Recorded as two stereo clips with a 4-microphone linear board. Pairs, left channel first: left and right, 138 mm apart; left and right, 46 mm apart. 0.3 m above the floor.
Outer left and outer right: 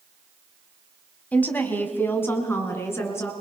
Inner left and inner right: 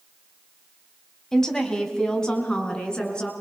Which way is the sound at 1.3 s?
10° left (ahead or behind).